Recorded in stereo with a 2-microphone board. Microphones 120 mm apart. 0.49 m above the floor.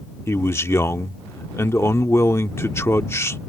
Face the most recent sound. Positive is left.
turn(degrees=20)  # may be behind; listen again after turning